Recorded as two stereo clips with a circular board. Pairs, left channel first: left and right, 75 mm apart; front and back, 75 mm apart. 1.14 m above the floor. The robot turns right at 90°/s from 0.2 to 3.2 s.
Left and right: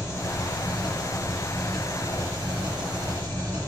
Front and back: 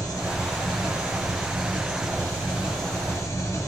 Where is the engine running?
40° left, 4.5 m; by 3.7 s 50° right, 4.5 m.